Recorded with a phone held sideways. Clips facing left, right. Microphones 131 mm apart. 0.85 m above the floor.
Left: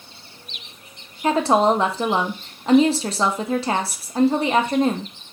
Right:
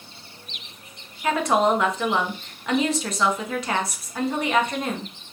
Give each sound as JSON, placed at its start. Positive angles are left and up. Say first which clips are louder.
{"t": 1.2, "sound": "a woman speaking", "louder": "left 3 dB", "side_deg": 30, "distance_m": 0.6}